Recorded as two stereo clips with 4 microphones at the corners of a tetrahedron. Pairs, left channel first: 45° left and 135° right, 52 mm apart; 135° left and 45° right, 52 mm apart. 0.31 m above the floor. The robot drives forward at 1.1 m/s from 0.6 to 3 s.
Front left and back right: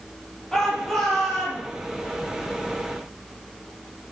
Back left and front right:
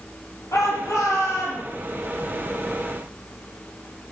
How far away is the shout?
About 7.5 m.